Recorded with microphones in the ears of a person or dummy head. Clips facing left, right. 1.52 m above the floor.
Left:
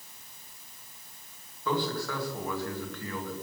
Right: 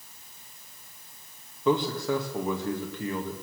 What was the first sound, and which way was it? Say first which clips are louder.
A man speaking: right 6 dB; 20° right (ahead or behind).